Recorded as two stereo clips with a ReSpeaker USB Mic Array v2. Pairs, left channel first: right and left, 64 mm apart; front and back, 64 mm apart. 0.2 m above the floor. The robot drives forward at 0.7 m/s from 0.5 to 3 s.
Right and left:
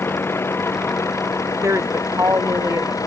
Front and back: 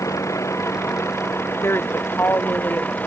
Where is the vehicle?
40° right; by 3.1 s 65° right.